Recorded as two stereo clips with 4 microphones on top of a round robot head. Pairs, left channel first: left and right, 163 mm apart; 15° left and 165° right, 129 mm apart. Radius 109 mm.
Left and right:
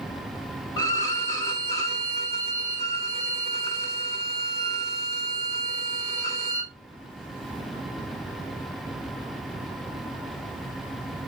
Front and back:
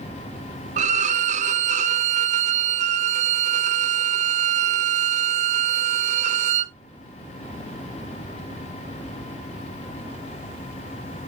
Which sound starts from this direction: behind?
A violin, at 0.8 s.